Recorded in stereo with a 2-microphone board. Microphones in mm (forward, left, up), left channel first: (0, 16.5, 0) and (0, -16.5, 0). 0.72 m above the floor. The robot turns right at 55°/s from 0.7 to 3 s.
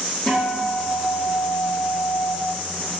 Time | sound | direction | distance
0.3 | a guitar | 40° left | 0.9 m